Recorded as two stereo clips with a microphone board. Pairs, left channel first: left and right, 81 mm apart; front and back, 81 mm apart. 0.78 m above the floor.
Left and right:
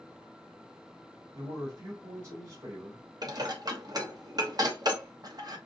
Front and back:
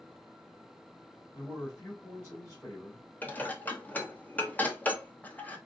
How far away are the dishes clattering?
About 0.8 m.